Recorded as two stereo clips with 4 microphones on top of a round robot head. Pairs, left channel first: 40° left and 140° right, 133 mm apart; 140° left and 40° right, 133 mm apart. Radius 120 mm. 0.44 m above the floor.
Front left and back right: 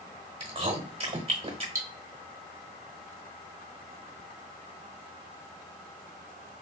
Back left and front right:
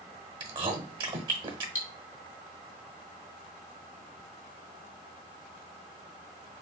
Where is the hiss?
I don't hear a hiss.